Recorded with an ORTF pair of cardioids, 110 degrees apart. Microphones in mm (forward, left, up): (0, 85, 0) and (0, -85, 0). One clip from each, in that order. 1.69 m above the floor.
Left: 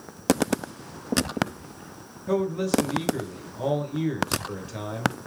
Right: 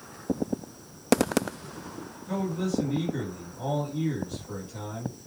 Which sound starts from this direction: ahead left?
A man speaking, at 2.3 s.